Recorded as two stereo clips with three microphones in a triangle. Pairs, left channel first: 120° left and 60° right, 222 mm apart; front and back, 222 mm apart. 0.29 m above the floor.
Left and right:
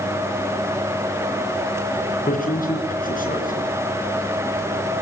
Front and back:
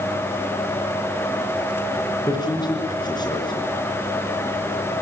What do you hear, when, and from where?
2.3 s a man speaking: 70° left, 4 m